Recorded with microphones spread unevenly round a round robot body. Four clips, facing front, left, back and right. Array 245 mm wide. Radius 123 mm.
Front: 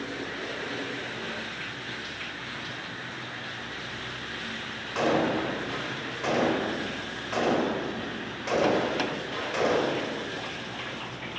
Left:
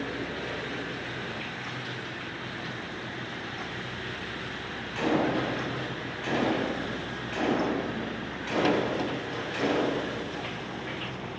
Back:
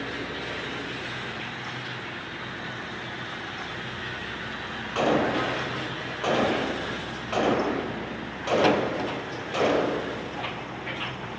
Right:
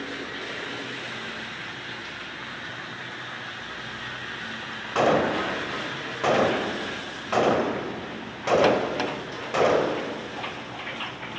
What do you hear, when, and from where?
5.0 s a gunshot: 100° right, 3.5 m